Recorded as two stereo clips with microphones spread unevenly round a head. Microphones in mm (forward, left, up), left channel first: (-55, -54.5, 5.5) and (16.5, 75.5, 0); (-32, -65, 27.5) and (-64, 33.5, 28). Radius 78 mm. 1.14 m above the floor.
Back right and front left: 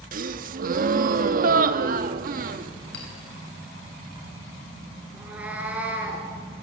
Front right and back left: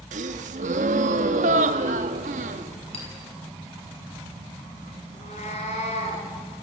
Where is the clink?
95° right, 7.5 m.